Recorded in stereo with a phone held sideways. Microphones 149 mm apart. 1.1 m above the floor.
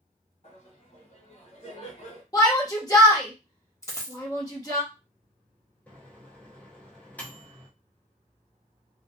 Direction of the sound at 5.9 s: 10° left (ahead or behind).